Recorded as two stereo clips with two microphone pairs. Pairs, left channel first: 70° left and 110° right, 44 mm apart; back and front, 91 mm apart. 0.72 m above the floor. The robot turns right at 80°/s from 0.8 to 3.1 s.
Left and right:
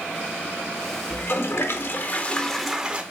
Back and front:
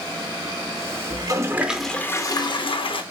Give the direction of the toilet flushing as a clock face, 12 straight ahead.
11 o'clock.